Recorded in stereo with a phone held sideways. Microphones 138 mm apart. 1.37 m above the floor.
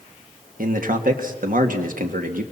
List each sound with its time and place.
0.6 s a man speaking: 80° right, 2 m